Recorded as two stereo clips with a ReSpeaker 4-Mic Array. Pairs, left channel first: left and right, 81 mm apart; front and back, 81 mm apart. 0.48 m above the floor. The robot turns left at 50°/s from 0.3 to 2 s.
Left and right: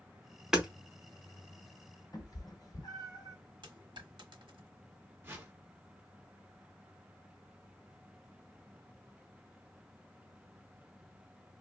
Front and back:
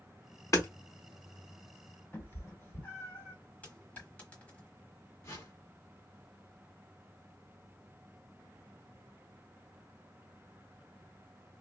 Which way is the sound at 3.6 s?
70° right.